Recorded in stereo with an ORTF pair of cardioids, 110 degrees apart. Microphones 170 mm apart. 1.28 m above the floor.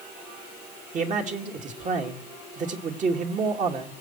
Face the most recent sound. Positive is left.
turn(degrees=-50)